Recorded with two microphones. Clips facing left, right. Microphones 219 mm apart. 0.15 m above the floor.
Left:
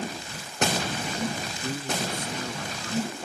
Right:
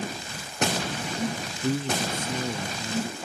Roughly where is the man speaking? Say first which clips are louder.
Right 5 dB; right.